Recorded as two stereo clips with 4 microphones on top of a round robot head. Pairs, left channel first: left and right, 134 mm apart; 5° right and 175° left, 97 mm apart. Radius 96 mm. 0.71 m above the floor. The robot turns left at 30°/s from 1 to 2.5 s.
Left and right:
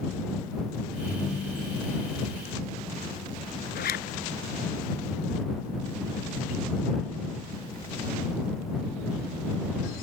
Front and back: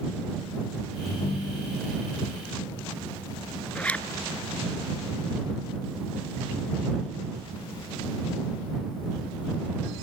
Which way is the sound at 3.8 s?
70° left.